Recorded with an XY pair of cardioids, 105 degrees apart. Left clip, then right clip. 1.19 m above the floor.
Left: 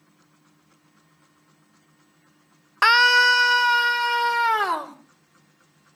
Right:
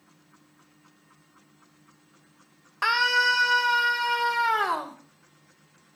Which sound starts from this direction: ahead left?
A scream, at 2.8 s.